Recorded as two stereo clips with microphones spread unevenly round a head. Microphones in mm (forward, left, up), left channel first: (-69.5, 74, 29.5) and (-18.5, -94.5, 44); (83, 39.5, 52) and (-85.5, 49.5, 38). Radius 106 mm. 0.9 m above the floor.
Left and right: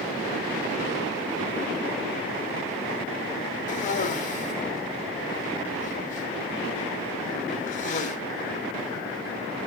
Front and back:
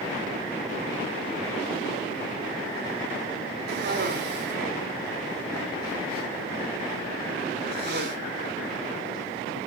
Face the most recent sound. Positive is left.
turn(degrees=155)